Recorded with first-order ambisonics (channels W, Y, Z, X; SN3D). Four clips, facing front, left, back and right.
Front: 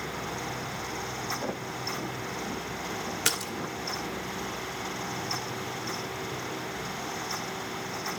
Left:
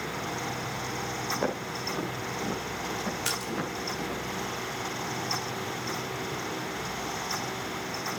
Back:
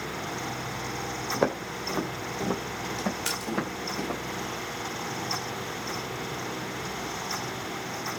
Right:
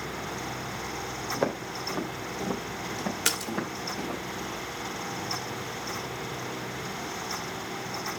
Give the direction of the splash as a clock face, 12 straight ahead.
2 o'clock.